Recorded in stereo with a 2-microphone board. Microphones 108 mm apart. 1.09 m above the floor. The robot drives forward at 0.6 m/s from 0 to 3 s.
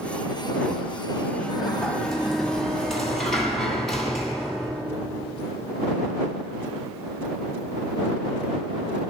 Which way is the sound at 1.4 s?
5° left (ahead or behind).